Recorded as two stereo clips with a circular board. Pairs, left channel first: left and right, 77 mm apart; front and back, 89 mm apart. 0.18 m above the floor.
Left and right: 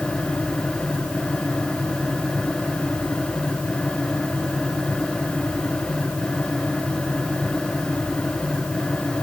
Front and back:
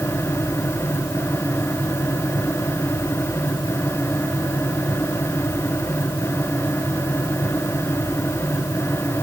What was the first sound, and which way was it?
Only background noise.